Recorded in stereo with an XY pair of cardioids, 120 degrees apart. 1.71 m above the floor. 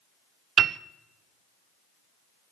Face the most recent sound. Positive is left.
turn(degrees=-45)